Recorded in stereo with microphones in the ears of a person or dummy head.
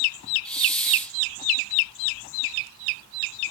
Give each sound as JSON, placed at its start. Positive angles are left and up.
{"t": 0.5, "sound": "a hiss", "side_deg": 10, "distance_m": 1.7}